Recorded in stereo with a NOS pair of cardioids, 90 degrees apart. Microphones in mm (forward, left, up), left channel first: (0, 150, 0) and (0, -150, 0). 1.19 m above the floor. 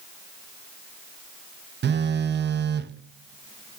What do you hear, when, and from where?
1.8 s a phone buzzing: 35° right, 0.8 m